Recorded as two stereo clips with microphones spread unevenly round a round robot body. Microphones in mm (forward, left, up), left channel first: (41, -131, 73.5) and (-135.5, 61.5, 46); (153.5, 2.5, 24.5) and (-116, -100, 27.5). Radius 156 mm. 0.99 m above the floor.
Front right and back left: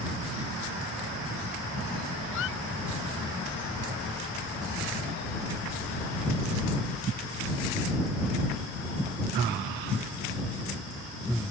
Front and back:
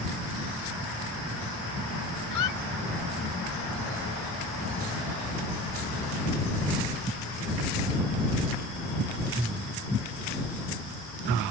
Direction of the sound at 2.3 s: Straight ahead.